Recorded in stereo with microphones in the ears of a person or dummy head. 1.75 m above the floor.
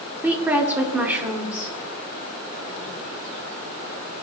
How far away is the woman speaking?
About 0.9 m.